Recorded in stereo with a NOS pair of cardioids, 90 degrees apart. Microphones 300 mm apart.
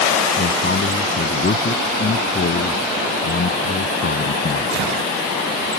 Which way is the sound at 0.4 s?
35° left.